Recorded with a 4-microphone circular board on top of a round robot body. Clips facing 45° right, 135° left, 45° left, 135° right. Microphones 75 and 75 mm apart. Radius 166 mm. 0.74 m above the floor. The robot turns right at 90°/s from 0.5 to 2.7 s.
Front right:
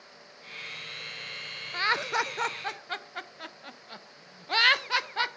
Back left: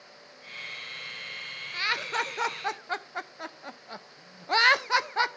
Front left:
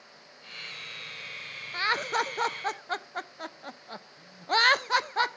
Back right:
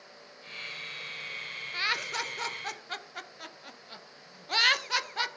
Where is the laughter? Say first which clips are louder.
Front right 3 dB, front left 6 dB; 10° right, 0.8 m; by 5.4 s 80° left, 0.8 m.